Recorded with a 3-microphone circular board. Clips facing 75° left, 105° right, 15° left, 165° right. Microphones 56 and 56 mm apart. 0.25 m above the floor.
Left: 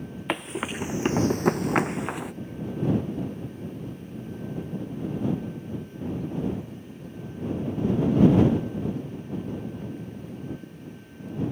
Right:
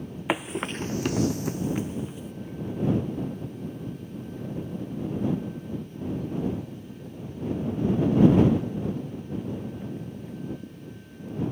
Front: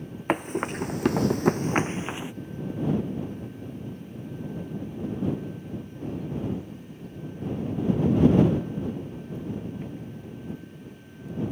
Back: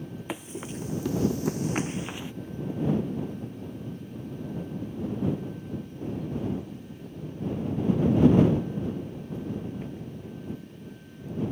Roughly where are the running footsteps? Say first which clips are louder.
Right 1 dB, front 11 dB; ahead right.